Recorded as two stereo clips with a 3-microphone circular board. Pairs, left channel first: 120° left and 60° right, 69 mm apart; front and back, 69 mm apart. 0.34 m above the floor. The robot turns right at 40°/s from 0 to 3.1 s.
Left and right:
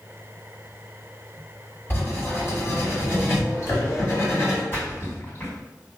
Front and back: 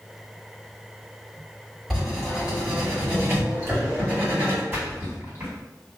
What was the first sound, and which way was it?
Writing, 95° left.